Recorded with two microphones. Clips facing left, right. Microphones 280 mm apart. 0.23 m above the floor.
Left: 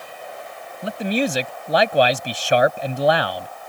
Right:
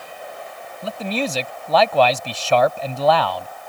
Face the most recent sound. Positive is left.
turn(degrees=15)  # may be behind; listen again after turning